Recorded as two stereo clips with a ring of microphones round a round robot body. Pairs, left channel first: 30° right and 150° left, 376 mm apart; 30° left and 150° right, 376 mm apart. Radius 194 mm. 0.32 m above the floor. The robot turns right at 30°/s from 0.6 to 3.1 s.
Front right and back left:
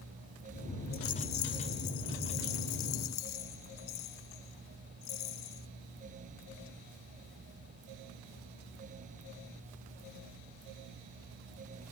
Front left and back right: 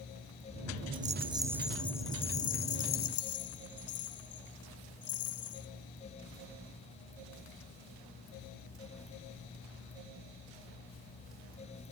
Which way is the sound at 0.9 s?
85° right.